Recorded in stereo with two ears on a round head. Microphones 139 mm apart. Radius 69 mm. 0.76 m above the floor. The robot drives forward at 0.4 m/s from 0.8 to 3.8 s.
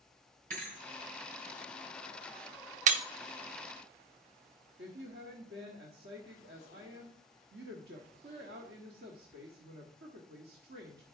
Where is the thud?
55° right (ahead or behind), 3 m.